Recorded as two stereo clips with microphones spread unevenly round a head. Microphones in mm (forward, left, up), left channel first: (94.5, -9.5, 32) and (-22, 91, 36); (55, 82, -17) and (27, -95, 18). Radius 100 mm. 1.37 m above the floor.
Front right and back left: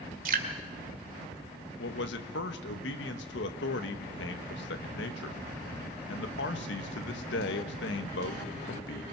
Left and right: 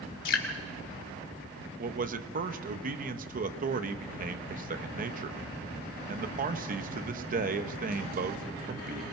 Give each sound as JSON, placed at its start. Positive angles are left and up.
{"t": 0.2, "sound": "dripping", "azimuth_deg": 115, "distance_m": 2.0}
{"t": 1.8, "sound": "a man speaking", "azimuth_deg": -60, "distance_m": 1.3}